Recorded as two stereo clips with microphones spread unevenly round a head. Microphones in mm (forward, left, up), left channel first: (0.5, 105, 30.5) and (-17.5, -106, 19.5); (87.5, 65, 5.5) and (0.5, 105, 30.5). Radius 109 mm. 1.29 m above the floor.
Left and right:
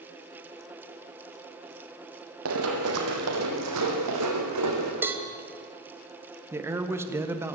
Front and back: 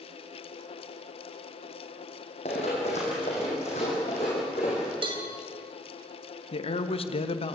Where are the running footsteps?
70° right, 3.5 m; by 4.9 s 90° right, 5 m.